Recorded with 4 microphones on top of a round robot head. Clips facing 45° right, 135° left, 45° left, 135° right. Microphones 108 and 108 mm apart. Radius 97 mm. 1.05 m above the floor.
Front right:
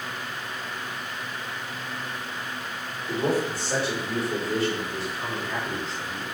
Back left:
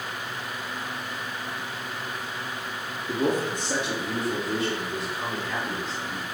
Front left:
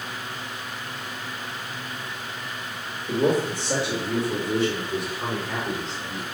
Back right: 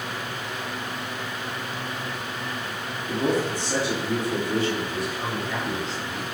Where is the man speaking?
60° left, 2.5 m; by 6.2 s 70° left, 4 m.